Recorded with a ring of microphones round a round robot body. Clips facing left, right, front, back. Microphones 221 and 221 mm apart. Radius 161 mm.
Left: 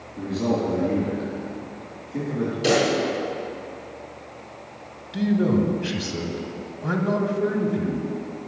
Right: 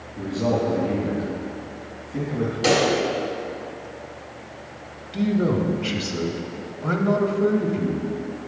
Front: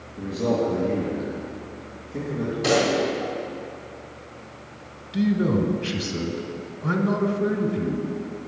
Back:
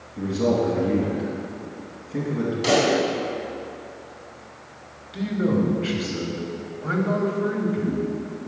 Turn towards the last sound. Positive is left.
turn(degrees=10)